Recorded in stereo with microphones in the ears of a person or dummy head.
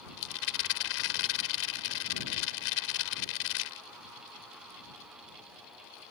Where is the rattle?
75° left (ahead or behind).